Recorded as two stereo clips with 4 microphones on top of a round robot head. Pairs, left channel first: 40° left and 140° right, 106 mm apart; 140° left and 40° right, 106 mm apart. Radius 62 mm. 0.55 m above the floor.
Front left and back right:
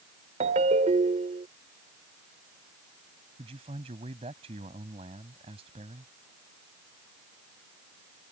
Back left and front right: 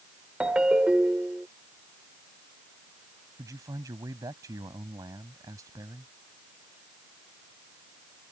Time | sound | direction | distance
0.4 | a ringtone | 125° right | ?
3.4 | a man speaking | 100° right | ?